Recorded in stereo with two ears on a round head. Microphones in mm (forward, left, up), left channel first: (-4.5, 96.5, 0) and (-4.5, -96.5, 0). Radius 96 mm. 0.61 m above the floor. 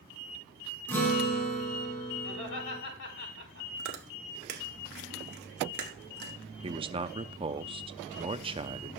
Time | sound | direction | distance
0.9 | a guitar | 10° left (ahead or behind) | 3.5 m
2.2 | laughter | 60° left (ahead or behind) | 5 m
3.8 | chewing | 50° right (ahead or behind) | 1.6 m
6.6 | a man speaking | 25° right (ahead or behind) | 0.6 m